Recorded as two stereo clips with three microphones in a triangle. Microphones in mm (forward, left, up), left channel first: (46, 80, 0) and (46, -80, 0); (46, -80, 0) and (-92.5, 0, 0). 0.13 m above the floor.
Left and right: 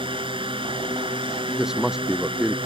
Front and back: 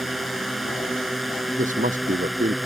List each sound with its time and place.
0.0 s a drone: 120° right
1.6 s a man speaking: 175° right